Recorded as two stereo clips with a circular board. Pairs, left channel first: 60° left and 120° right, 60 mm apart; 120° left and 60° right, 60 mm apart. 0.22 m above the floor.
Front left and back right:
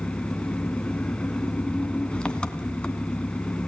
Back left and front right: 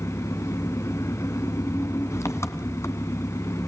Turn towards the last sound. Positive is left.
turn(degrees=130)